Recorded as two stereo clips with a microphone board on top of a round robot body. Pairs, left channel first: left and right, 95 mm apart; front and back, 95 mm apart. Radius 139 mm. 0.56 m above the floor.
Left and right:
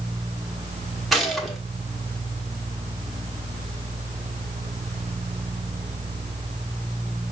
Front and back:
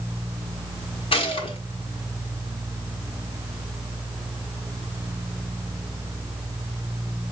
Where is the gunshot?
Straight ahead, 1.4 m.